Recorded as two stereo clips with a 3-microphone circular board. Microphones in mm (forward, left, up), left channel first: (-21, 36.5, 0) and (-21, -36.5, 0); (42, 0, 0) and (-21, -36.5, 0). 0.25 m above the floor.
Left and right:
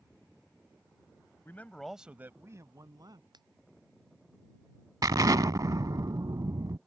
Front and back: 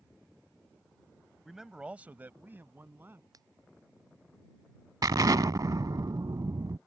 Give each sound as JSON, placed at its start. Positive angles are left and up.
{"t": 1.4, "sound": "a man speaking", "azimuth_deg": 125}
{"t": 3.3, "sound": "a finger snap", "azimuth_deg": -110}
{"t": 5.0, "sound": "an explosion", "azimuth_deg": -120}